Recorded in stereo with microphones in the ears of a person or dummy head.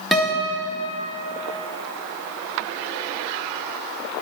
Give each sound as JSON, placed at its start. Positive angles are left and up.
{"t": 0.1, "sound": "a guitar", "side_deg": 0, "distance_m": 1.8}